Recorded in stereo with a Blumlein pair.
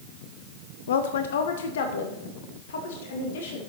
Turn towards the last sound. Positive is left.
turn(degrees=60)